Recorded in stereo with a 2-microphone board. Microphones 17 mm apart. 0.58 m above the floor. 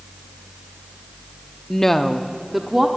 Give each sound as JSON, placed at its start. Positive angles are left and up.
{"t": 1.7, "sound": "a woman speaking", "side_deg": 30, "distance_m": 0.7}